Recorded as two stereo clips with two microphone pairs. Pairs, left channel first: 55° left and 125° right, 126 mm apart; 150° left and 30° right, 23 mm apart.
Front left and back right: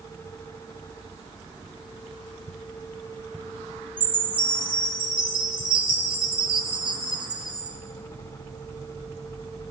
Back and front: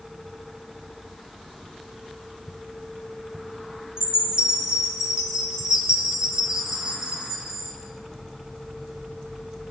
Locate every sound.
4.0 s a chime: 85° right, 3.5 m